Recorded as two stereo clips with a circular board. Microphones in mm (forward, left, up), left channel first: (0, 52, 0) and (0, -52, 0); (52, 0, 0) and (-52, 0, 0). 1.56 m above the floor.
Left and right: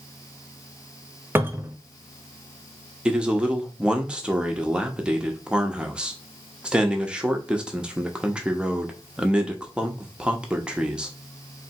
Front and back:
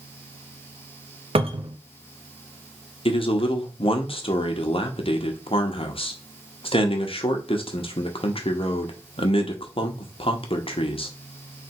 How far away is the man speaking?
About 0.9 m.